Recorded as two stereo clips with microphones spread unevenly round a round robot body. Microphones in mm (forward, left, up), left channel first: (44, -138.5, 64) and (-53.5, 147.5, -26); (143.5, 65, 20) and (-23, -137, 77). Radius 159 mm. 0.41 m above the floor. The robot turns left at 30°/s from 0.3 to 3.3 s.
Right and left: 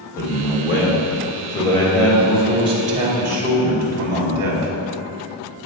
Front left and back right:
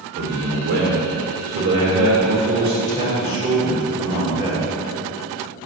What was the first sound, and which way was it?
A man speaking, 120° right.